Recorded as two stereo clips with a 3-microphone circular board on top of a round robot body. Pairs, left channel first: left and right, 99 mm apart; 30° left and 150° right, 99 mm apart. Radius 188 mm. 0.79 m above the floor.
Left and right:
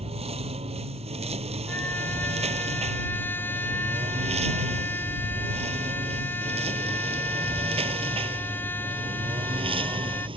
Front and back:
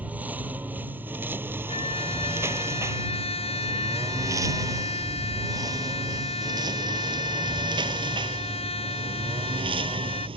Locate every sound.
0.0 s a lawn mower: 75° right; by 10.4 s 120° right
1.7 s a trumpet: 20° left